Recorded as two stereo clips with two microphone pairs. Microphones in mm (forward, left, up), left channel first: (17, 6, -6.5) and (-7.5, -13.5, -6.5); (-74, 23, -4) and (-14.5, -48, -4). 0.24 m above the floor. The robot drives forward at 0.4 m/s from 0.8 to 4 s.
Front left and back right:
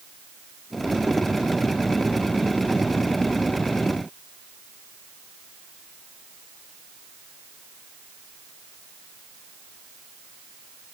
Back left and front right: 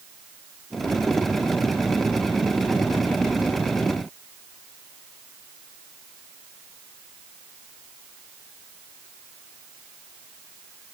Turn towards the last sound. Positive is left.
No sound to turn to.